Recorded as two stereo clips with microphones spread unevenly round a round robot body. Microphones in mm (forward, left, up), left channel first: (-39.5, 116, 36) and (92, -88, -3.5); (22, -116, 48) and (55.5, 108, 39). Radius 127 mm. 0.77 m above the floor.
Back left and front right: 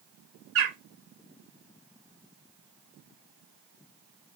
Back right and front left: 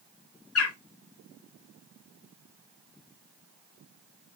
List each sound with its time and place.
0.6 s a bird: 90° right, 2 m